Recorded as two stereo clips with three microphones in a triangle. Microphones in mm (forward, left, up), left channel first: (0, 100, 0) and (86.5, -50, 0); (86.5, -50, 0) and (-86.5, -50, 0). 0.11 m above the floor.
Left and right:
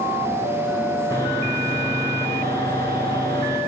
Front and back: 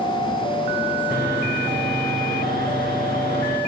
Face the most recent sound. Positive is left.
turn(degrees=-170)